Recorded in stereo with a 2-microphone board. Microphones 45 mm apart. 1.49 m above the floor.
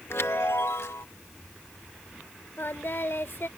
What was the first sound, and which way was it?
A chime, 70° left (ahead or behind).